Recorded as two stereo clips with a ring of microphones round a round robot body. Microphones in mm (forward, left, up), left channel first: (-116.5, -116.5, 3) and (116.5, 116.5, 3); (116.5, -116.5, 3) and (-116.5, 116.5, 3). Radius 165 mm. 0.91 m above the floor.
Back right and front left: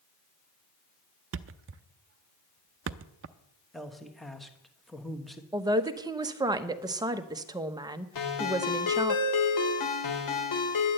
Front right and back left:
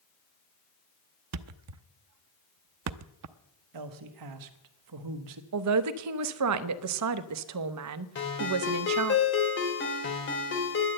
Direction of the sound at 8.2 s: 100° right.